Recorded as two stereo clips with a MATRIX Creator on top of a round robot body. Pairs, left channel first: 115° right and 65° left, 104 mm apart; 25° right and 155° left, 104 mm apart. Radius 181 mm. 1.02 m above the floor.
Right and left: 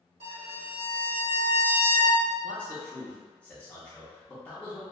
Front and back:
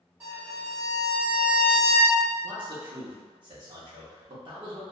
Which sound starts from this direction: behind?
A man speaking, at 2.4 s.